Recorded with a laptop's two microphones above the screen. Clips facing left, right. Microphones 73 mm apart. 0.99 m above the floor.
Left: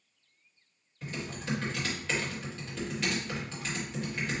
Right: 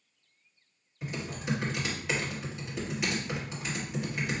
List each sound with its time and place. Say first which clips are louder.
1.0 s typing on a keyboard: right 2 dB; 15° right (ahead or behind), 1.1 m